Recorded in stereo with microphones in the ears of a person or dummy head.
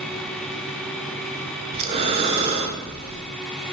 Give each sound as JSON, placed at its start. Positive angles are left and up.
{"t": 1.7, "sound": "breathing", "side_deg": -30, "distance_m": 0.6}